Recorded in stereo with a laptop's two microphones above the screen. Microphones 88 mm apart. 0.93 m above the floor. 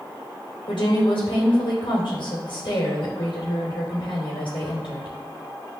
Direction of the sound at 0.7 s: 80° left.